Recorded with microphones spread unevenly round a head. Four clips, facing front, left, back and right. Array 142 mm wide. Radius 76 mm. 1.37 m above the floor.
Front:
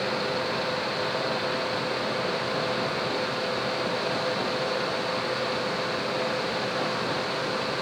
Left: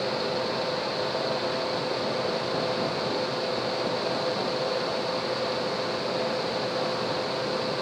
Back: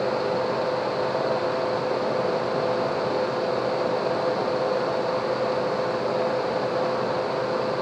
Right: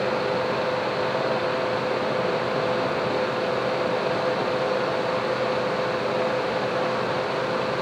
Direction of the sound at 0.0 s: 160° right.